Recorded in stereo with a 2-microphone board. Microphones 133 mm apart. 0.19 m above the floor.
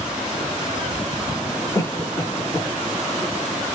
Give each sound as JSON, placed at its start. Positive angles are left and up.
{"t": 1.8, "sound": "a cough", "side_deg": 20, "distance_m": 2.0}